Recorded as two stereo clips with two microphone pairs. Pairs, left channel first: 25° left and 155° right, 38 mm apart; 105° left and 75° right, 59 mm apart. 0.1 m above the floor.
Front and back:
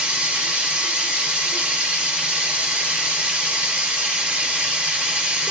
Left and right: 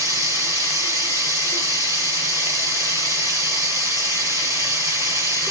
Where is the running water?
95° right, 1.7 m.